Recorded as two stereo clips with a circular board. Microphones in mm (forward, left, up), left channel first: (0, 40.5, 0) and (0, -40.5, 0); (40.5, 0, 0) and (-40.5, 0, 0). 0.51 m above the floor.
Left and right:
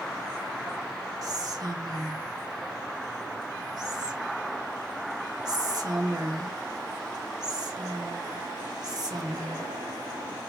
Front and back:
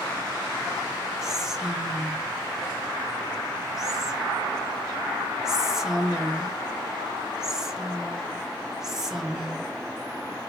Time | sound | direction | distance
1.2 | whispering | 95° right | 1.1 m